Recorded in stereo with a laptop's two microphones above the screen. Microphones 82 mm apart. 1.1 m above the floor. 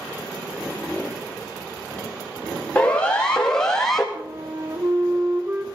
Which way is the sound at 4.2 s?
40° right (ahead or behind).